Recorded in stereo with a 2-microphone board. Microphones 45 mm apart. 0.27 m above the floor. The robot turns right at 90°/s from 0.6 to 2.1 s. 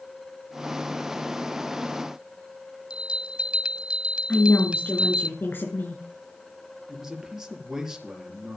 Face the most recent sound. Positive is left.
turn(degrees=-10)  # may be behind; listen again after turning